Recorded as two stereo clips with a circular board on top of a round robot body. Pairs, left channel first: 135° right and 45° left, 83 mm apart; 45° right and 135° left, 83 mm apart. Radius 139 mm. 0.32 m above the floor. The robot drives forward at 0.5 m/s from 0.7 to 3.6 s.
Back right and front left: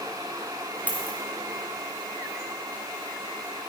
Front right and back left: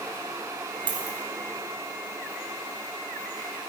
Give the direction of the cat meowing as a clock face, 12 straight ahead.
I don't hear a cat meowing.